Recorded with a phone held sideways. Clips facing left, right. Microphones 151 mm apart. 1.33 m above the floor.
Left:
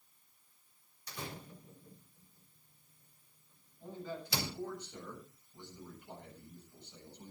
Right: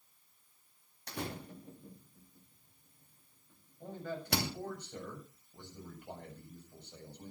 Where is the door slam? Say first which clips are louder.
Right 5 dB; 65° right (ahead or behind), 2.5 m.